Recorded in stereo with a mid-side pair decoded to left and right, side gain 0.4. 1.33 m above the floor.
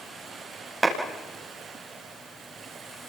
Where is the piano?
No piano in this recording.